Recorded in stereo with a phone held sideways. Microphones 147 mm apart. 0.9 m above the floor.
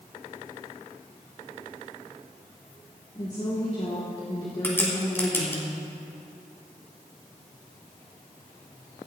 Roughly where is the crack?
Centre.